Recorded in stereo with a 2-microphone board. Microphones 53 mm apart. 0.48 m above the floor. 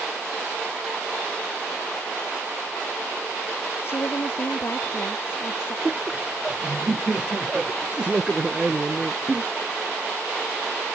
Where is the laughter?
15° right (ahead or behind).